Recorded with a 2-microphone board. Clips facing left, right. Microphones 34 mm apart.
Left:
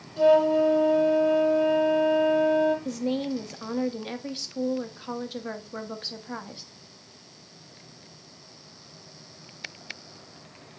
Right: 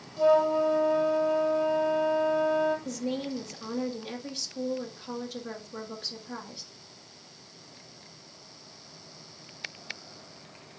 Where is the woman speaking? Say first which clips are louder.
Left 4 dB; 30° left (ahead or behind), 1.1 m.